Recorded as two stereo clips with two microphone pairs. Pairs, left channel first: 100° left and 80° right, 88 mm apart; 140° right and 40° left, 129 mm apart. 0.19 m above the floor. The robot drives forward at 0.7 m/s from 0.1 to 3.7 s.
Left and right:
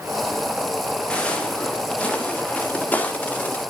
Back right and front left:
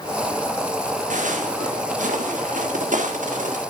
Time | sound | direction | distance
1.1 | footsteps | 20° left | 3.5 m